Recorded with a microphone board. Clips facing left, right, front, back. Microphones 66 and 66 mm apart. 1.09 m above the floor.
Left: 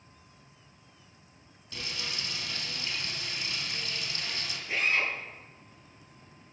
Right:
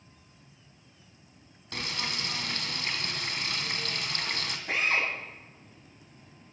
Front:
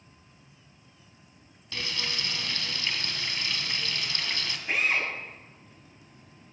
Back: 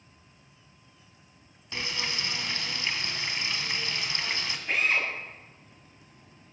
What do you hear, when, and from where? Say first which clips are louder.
1.7 s frying: right 4 dB, back 1 dB; 115° right, 2.5 m
4.7 s a drill: right 1 dB, even; 85° right, 8.5 m